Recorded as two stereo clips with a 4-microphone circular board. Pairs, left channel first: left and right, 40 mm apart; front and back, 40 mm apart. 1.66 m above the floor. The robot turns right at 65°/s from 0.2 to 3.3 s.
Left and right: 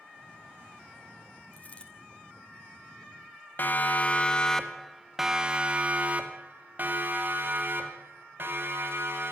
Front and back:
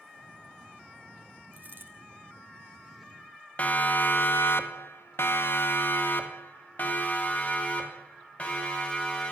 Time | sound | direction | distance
1.5 | a dropped coin | 135° left | 3 m
3.6 | a siren | 50° left | 2 m